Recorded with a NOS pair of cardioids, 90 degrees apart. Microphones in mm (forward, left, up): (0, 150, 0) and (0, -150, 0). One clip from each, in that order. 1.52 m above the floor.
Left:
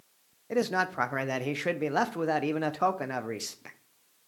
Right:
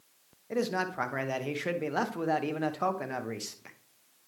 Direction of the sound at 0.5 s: 20° left.